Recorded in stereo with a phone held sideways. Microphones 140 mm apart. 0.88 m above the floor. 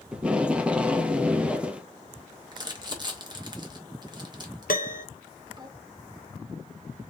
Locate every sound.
0.1 s tape being pulled: 10° right (ahead or behind), 0.6 m
2.5 s crumpling: 30° right (ahead or behind), 1.0 m
4.7 s a piano: 80° left, 0.5 m